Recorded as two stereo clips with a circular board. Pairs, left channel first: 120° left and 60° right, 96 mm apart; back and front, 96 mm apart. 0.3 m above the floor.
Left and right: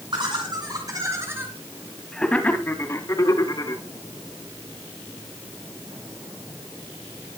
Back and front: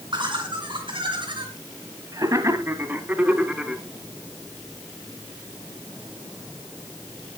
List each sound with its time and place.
0.1 s laughter: 30° right, 2.5 m; by 3.8 s 85° left, 3 m